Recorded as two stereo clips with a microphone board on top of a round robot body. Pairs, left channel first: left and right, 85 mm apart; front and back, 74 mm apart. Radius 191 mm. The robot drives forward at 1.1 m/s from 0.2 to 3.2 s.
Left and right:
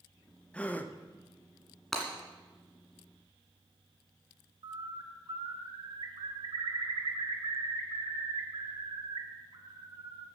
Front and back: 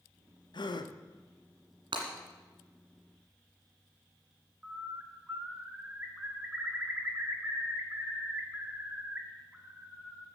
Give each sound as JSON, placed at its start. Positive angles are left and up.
{"t": 0.5, "sound": "a gasp", "azimuth_deg": 15, "distance_m": 1.0}
{"t": 1.9, "sound": "breaking glass", "azimuth_deg": 175, "distance_m": 2.0}
{"t": 4.6, "sound": "a bird", "azimuth_deg": -110, "distance_m": 1.3}